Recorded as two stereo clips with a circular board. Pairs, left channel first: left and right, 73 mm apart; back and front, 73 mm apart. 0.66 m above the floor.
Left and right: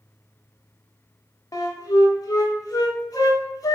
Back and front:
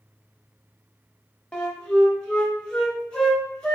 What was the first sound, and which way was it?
A flute, 105° left.